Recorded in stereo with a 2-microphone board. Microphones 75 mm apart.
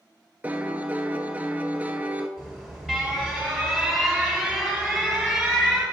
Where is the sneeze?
No sneeze in this recording.